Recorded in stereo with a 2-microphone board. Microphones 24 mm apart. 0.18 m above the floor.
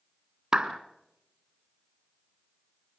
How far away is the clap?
About 1.3 m.